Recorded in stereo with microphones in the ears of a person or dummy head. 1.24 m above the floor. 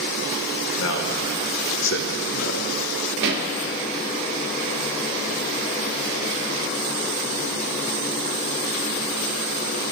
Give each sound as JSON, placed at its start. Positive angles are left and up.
{"t": 0.8, "sound": "a man speaking", "side_deg": 70, "distance_m": 1.6}
{"t": 3.2, "sound": "a pop", "side_deg": -65, "distance_m": 1.2}